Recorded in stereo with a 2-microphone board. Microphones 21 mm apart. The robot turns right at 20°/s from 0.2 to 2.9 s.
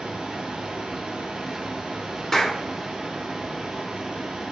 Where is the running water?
110° right, 0.8 m; by 4.5 s 55° right, 0.8 m.